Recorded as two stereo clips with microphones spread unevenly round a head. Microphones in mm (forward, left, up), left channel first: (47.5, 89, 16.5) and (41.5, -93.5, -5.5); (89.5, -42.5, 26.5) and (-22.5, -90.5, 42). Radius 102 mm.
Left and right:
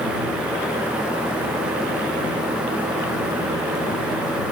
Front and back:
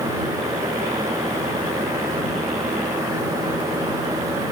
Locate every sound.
Only background noise.